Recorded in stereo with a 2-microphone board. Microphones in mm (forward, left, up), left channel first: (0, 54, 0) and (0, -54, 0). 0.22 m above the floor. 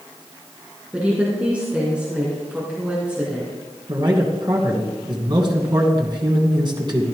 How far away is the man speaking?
About 2.5 m.